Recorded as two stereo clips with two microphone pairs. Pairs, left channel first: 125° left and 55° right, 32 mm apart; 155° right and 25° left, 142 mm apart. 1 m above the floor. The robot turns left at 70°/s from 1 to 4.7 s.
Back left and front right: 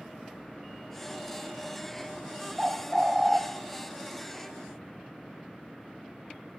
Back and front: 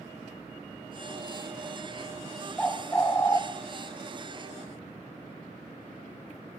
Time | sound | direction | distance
2.6 | a bird | 85° right | 0.8 m